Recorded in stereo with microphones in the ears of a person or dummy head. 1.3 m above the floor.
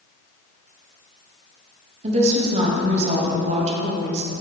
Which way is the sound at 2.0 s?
45° right (ahead or behind).